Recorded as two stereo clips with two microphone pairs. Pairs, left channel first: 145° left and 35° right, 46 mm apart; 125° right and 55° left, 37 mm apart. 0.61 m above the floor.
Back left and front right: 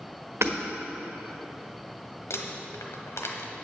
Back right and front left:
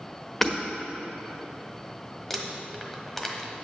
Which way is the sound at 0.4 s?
45° right.